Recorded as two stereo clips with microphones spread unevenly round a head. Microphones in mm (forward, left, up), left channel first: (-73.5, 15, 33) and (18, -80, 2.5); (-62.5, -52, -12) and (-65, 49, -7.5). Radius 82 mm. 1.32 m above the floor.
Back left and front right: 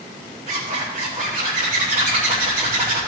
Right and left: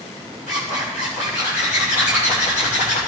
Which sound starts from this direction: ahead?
A zipper, at 0.5 s.